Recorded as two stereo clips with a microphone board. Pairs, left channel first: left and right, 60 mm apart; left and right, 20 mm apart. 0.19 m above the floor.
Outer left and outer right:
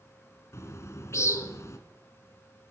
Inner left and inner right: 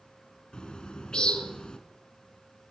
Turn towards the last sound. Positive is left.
turn(degrees=50)  # may be behind; listen again after turning